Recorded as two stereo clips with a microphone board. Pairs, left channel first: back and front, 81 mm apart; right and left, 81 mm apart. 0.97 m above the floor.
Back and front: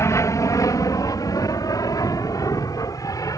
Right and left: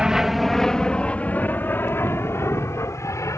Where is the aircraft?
165° left; by 3.4 s 140° right.